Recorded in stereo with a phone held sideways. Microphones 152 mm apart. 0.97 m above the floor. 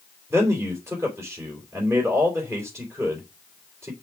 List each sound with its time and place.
0.3 s a man speaking: 15° right (ahead or behind), 3.5 m